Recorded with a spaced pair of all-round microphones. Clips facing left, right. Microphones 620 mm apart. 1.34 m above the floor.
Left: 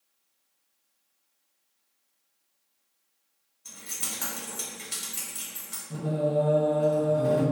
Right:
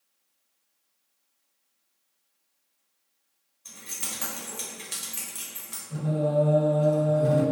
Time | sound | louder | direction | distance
3.6 | keys jangling | even | 5° right (ahead or behind) | 1.0 m
5.9 | singing | right 1 dB | 20° left (ahead or behind) | 1.5 m